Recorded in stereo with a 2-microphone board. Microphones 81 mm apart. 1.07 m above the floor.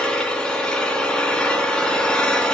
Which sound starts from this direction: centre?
An engine running, at 0.0 s.